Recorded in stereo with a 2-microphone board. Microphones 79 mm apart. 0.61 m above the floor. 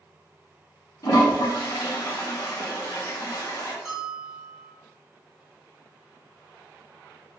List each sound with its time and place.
1.0 s a toilet flushing: 50° left (ahead or behind), 0.7 m
3.9 s a bell: centre (ahead or behind), 1.4 m